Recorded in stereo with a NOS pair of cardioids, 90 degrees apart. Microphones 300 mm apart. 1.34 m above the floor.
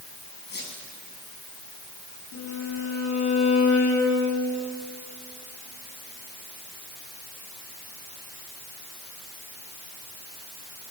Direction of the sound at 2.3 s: 60° left.